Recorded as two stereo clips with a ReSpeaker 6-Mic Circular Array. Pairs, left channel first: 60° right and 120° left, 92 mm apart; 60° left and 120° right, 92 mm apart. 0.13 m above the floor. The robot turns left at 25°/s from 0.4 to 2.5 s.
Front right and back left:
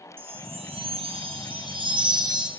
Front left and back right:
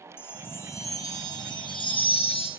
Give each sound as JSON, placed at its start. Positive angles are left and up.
{"t": 0.2, "sound": "a chime", "azimuth_deg": 125, "distance_m": 8.0}